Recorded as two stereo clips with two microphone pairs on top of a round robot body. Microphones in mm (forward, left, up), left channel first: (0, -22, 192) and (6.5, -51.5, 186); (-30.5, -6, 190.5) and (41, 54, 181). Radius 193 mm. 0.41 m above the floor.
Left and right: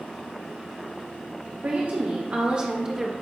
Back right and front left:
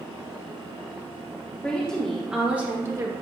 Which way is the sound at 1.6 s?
65° right.